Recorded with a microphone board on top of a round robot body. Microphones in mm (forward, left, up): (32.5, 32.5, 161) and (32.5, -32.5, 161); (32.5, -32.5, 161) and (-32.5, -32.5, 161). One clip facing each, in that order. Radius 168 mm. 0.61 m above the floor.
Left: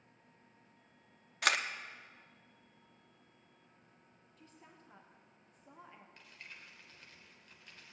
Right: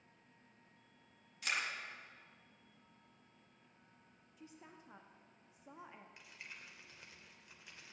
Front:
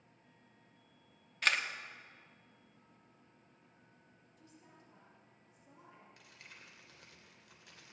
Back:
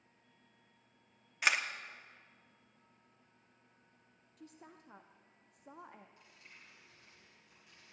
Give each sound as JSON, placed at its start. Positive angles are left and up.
{"t": 1.4, "sound": "a camera shutter", "azimuth_deg": 100, "distance_m": 0.9}
{"t": 4.4, "sound": "a woman speaking", "azimuth_deg": -170, "distance_m": 1.0}
{"t": 6.2, "sound": "crumpling", "azimuth_deg": -10, "distance_m": 2.5}